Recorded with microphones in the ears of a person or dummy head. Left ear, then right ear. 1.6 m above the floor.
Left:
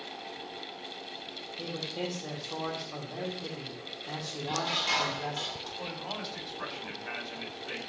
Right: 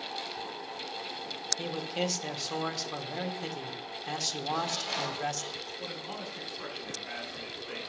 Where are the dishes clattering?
45° left (ahead or behind), 4.5 m.